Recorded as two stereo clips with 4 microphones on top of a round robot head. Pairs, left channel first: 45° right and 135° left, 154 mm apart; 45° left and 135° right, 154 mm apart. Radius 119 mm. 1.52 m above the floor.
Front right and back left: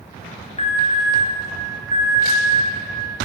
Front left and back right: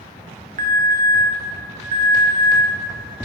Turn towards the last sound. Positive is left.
turn(degrees=-100)